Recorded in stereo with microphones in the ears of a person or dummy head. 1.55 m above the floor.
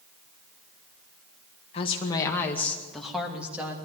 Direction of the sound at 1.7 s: 30° left (ahead or behind).